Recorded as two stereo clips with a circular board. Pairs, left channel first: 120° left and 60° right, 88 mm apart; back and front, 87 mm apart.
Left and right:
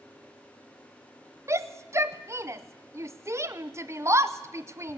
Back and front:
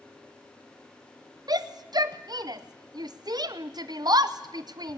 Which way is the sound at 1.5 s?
15° right.